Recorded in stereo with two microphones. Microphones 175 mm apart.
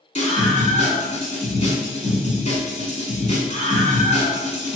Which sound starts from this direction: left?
A scream, at 0.1 s.